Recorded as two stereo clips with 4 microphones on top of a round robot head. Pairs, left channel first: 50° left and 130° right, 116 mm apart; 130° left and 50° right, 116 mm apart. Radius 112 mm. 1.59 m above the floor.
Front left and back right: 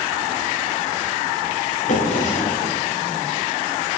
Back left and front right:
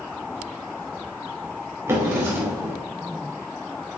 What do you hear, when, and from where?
1.9 s a drawer: 20° left, 2 m